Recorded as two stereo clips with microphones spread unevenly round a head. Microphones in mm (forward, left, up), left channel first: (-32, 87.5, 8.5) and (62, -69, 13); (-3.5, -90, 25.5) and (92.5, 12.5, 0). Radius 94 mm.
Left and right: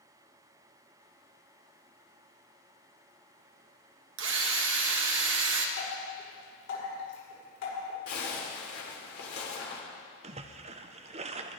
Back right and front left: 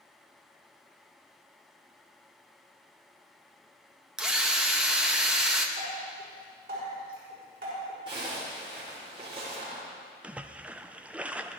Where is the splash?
45° right, 0.5 m.